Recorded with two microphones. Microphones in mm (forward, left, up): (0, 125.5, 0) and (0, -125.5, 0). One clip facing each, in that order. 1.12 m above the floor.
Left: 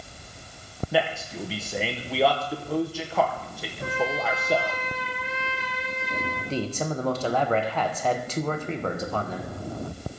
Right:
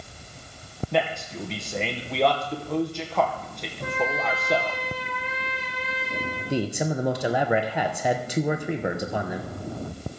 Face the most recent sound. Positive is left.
turn(degrees=-15)  # may be behind; listen again after turning